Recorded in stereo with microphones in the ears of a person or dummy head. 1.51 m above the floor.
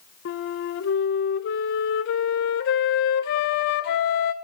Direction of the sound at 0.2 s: 50° left (ahead or behind).